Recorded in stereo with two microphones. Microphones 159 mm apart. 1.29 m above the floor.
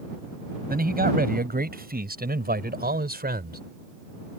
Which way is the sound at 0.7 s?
70° right (ahead or behind).